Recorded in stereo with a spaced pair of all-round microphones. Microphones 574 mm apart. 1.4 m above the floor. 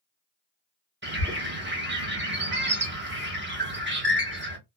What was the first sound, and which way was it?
A bird, 20° right (ahead or behind).